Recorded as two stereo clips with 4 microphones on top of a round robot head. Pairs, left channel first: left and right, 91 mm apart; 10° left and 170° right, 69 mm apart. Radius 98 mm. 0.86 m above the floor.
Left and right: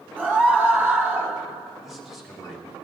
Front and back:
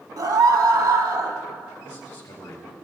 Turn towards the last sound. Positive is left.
turn(degrees=0)